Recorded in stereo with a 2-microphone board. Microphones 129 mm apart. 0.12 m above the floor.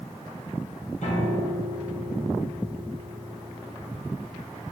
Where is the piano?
70° left (ahead or behind), 4.5 m.